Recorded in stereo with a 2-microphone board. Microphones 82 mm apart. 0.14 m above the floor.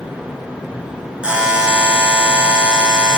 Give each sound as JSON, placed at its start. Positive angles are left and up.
{"t": 1.2, "sound": "a buzzer", "side_deg": -10, "distance_m": 1.3}